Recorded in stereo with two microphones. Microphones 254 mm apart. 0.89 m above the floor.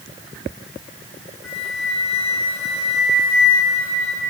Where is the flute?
60° left (ahead or behind), 3.5 m.